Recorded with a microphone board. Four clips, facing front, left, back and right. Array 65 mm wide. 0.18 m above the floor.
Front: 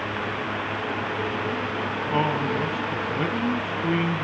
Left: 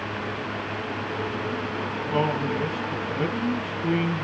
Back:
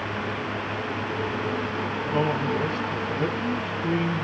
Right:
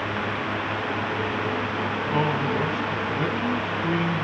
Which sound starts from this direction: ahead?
A man speaking, at 2.1 s.